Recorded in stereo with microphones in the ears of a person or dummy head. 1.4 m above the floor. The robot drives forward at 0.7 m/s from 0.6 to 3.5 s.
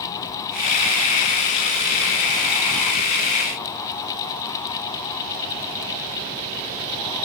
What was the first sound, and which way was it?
Only background noise.